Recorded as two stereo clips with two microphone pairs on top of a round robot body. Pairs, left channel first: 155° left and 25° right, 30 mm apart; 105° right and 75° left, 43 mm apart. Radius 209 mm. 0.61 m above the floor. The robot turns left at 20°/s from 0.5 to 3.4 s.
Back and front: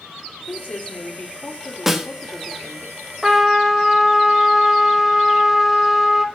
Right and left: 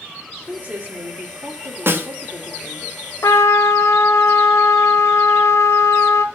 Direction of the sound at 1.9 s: 50° left.